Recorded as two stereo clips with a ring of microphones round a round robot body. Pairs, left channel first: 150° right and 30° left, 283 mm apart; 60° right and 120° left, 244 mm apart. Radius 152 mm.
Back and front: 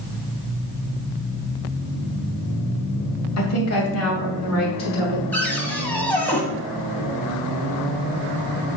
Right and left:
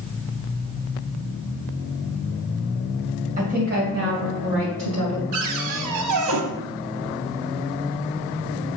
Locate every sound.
3.4 s a woman speaking: straight behind, 3 m; by 5.2 s 165° left, 5.5 m
5.3 s a cupboard door: 125° left, 1.3 m